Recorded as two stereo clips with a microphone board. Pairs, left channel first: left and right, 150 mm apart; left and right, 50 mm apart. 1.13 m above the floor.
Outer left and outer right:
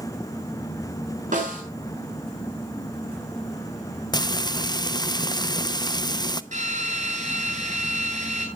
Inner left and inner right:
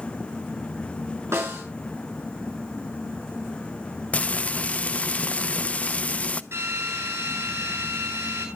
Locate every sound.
1.3 s a snare drum: 65° right (ahead or behind), 6 m
4.1 s frying: 30° left (ahead or behind), 0.6 m
6.5 s a drill: 60° right (ahead or behind), 9 m